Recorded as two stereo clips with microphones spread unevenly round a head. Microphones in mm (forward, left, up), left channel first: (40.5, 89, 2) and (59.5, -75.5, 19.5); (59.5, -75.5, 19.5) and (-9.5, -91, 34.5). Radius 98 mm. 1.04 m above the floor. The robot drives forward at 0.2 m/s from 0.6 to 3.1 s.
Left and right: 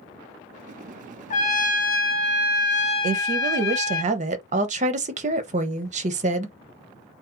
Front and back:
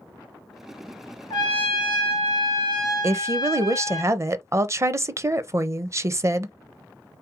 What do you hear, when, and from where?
1.3 s a trumpet: 50° left, 0.7 m; by 4.0 s 80° left, 0.6 m
3.0 s a woman speaking: 115° right, 0.6 m; by 6.5 s 120° right, 0.6 m